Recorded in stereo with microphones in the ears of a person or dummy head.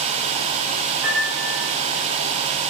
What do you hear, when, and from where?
1.0 s a piano: 5° left (ahead or behind), 1.4 m